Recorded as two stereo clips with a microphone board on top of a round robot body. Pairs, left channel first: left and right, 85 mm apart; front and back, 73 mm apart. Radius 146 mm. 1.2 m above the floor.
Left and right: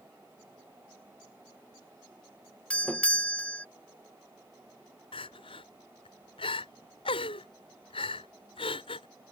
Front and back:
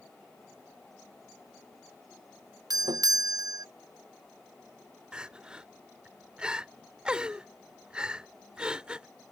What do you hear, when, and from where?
2.7 s a doorbell: 165° left
5.1 s crying: 100° left